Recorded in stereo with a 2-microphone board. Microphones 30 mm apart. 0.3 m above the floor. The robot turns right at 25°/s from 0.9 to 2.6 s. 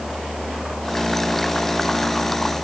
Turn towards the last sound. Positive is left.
No sound to turn to.